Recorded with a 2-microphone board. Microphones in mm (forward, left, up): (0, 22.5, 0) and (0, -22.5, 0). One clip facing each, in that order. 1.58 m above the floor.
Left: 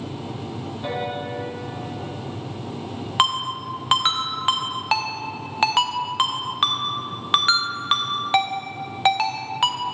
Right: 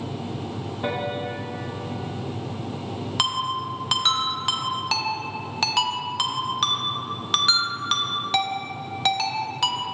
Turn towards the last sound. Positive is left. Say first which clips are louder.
# left 4 dB
turn(degrees=25)  # may be behind; listen again after turning